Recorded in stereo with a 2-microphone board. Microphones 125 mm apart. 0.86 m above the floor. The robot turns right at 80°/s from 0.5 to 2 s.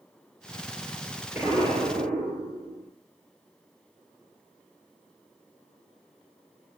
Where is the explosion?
170° right, 10 m; by 2.9 s 120° right, 10 m.